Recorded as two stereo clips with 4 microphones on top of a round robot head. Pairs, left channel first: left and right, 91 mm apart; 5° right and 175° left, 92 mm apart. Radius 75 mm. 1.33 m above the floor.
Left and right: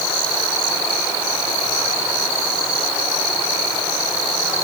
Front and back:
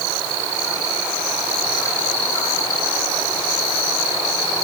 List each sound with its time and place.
Only background noise.